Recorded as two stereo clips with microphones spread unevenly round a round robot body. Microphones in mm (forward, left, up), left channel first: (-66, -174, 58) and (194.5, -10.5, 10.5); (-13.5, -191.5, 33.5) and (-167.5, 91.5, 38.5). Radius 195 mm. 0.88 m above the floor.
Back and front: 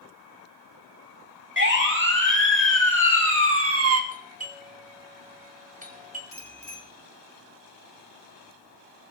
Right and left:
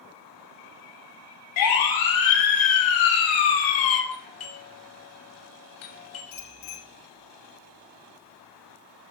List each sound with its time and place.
1.6 s a siren: 20° right, 5 m; by 4.0 s 10° right, 1.9 m
4.1 s a doorbell: 30° right, 3.5 m
6.3 s a bicycle bell: 60° right, 7.5 m